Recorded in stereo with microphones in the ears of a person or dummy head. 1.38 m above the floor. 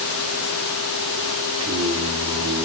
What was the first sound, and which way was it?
Singing, 30° right (ahead or behind).